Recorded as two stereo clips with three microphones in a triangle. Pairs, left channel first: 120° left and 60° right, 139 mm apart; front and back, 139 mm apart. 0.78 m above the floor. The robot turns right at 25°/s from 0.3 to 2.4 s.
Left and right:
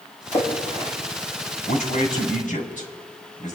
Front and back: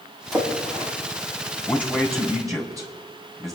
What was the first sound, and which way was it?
A splash, 90° left.